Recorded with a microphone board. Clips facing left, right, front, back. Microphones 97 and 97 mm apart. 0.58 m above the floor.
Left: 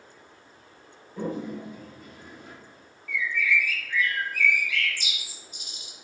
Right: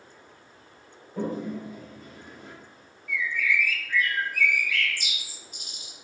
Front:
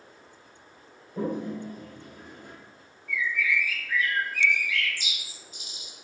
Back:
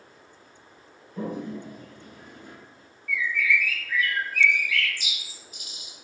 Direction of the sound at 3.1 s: 55° right.